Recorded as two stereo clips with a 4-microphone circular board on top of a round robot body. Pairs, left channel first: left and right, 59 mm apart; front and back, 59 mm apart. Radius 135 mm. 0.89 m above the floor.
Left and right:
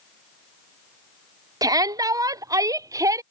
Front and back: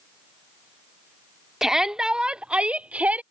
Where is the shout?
95° right; by 3.2 s 115° right.